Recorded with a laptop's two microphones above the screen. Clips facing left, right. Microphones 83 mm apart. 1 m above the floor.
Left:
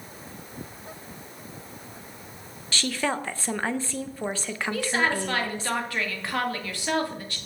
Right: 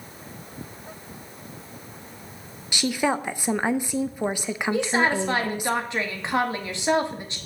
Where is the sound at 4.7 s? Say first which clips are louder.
Right 3 dB; 20° right (ahead or behind), 2.0 m.